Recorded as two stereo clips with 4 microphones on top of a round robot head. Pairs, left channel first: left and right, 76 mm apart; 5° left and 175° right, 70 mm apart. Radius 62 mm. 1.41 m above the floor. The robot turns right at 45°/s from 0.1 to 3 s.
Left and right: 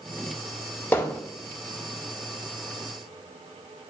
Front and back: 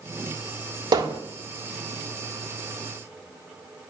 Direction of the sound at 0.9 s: 165° left.